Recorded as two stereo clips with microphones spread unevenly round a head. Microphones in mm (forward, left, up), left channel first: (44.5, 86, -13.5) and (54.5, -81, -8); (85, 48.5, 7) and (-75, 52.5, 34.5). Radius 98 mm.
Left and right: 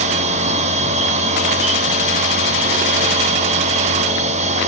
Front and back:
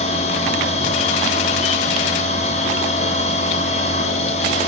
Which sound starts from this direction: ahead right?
A machine running, at 0.0 s.